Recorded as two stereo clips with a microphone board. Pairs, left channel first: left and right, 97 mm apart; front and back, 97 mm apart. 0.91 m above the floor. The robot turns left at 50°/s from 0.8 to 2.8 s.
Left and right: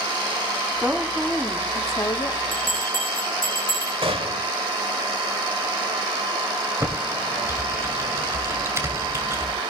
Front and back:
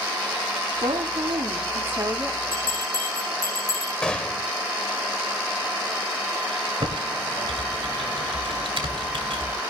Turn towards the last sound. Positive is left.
turn(degrees=-150)